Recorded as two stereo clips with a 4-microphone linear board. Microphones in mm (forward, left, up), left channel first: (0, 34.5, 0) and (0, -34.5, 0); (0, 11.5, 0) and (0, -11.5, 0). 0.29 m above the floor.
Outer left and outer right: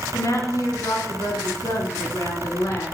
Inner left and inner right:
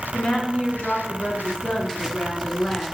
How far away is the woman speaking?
About 2.5 m.